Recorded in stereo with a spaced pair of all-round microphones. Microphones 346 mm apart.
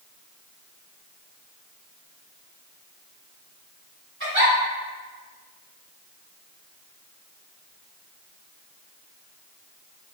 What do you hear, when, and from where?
4.2 s a giggle: 35° right (ahead or behind), 1.2 m